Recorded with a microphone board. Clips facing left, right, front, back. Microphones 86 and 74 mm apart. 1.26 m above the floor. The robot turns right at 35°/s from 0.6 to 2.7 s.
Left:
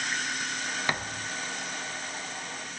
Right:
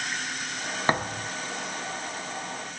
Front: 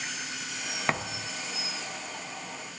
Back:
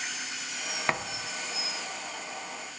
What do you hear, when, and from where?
0.9 s a thud: 85° right, 0.6 m; by 1.3 s 70° right, 0.6 m